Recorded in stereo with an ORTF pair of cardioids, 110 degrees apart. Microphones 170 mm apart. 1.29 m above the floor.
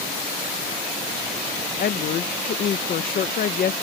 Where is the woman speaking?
55° left.